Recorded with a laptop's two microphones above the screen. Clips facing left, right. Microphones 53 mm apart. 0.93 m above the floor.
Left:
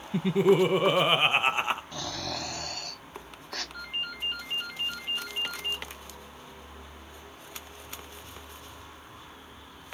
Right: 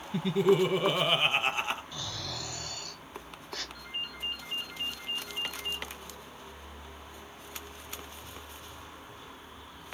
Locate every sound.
0.1 s laughter: 20° left (ahead or behind), 0.5 m
1.9 s snoring: 50° left (ahead or behind), 1.4 m
3.7 s a ringtone: 85° left, 2.0 m